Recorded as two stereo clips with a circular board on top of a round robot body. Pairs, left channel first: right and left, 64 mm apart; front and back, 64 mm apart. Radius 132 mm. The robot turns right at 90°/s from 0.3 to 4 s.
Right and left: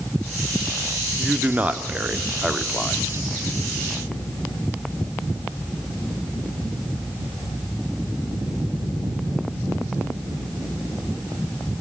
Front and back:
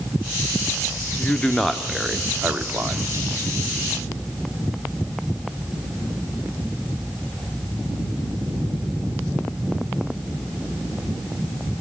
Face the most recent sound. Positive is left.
turn(degrees=-70)